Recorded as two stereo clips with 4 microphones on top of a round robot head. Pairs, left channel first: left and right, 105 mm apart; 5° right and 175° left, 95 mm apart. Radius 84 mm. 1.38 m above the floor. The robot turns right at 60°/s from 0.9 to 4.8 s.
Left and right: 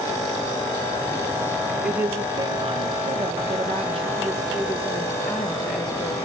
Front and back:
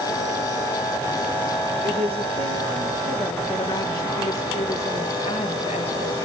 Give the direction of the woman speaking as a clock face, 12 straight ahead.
6 o'clock.